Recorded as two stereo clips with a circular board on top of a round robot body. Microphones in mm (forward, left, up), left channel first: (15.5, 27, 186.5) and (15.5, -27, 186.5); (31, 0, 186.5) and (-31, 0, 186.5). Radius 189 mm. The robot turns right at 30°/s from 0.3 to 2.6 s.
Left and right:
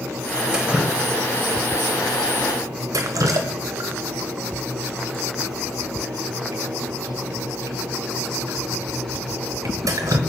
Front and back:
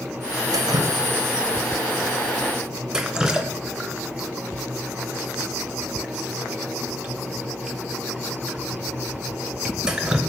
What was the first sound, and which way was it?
Dripping, 165° right.